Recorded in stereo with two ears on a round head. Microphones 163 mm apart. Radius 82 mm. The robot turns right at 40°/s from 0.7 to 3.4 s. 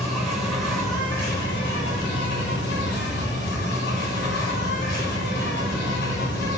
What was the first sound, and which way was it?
An insect, straight ahead.